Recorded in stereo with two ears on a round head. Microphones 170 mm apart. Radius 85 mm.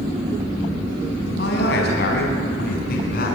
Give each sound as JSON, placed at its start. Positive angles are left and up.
{"t": 1.4, "sound": "a man speaking", "side_deg": 65, "distance_m": 5.0}